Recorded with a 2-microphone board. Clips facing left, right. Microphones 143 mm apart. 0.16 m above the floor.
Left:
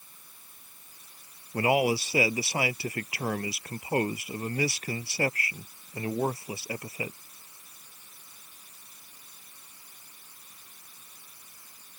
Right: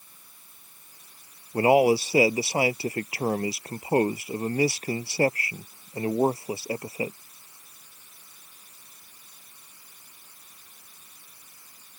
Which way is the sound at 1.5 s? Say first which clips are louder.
Right 6 dB; 35° right (ahead or behind).